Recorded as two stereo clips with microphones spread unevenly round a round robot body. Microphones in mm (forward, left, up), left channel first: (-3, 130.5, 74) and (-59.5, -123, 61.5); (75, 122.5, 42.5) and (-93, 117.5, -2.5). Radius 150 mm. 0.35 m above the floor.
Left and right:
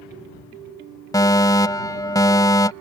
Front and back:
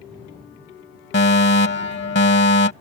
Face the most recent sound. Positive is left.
turn(degrees=0)